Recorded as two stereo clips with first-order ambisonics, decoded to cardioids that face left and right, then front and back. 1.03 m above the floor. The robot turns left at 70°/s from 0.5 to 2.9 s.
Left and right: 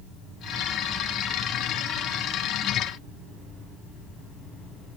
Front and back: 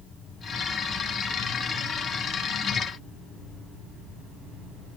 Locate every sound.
Only background noise.